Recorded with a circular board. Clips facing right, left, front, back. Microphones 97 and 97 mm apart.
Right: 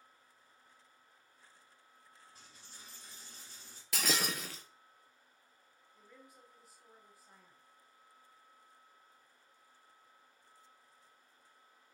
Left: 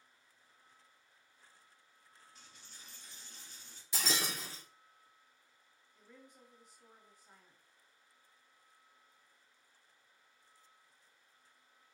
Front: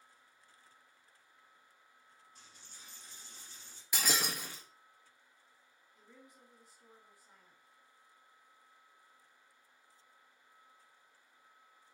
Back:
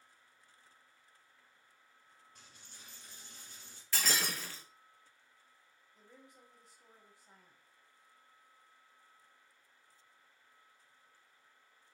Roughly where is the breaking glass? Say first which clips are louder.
Right 2 dB, front 1 dB; right.